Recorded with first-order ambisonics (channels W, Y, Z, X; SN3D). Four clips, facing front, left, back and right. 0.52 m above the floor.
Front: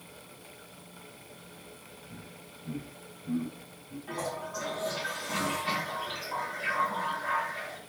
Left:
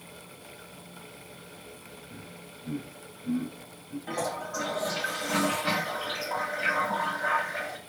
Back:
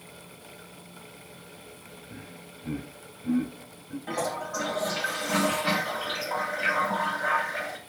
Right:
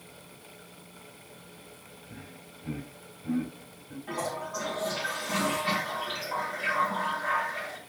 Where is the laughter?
160° right, 4 m.